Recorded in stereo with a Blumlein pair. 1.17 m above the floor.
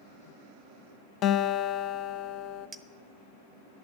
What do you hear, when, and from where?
1.2 s a guitar: 35° left, 0.6 m
2.7 s a clink: 15° right, 0.9 m